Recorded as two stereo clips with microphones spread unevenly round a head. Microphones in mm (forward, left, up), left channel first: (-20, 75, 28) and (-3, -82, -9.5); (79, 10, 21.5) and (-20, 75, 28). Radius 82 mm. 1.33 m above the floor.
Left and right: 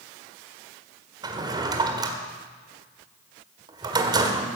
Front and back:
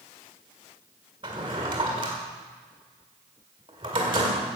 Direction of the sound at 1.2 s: 155° right.